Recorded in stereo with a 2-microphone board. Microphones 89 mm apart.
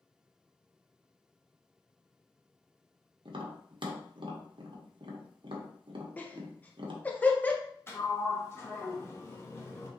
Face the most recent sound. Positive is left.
turn(degrees=30)  # may be behind; listen again after turning